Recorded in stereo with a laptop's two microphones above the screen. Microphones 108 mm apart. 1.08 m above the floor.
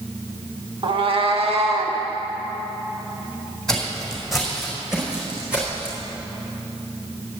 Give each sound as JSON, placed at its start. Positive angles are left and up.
{"t": 0.8, "sound": "a cat meowing", "side_deg": -50, "distance_m": 0.9}
{"t": 3.7, "sound": "footsteps", "side_deg": 5, "distance_m": 3.5}